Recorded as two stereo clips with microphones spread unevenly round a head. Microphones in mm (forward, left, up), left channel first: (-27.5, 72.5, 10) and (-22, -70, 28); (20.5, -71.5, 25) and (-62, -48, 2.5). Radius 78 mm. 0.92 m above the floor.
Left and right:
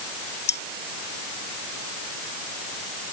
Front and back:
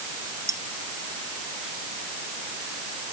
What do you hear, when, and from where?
0.5 s cutlery clinking: 95° left